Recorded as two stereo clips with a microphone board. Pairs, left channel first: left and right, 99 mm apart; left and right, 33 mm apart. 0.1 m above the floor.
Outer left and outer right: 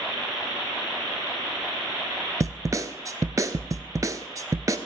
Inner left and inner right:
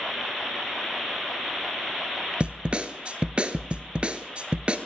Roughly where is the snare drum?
Right.